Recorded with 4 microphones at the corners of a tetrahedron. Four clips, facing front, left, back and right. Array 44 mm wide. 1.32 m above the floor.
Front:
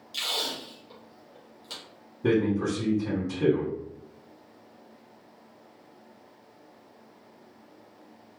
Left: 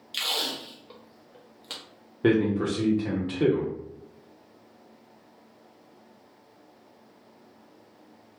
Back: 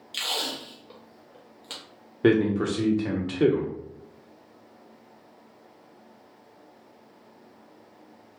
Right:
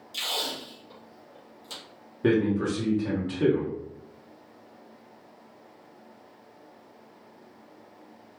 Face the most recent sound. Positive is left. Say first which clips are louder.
# left 1 dB, back 3 dB
turn(degrees=170)